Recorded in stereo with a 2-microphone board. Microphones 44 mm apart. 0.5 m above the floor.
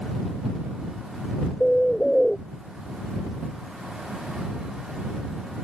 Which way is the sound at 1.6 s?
10° left (ahead or behind).